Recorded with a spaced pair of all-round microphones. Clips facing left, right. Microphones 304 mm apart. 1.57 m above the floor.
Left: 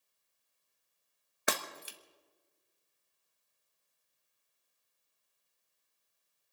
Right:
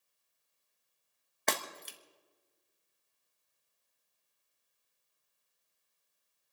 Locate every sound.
1.5 s breaking glass: 10° left (ahead or behind), 1.3 m